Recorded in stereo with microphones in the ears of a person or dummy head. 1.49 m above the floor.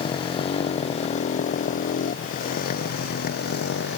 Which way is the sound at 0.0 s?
25° left (ahead or behind).